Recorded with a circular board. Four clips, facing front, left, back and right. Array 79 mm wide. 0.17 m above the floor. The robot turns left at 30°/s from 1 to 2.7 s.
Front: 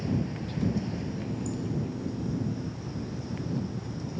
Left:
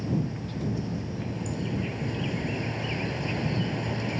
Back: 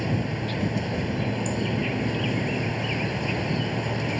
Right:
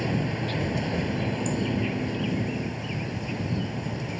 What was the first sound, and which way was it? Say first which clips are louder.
An insect: right 3 dB, back 4 dB; 140° right.